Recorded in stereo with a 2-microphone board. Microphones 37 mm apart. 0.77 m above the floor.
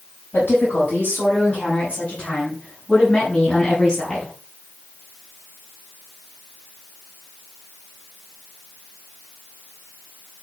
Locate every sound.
0.3 s a woman speaking: 60° left (ahead or behind), 6 m; by 4.3 s 20° left (ahead or behind), 7.5 m